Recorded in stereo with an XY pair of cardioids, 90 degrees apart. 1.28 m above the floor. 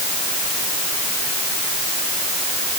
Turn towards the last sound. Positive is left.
No sound to turn to.